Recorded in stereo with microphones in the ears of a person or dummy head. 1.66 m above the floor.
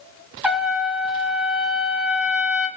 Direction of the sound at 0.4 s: 10° right (ahead or behind).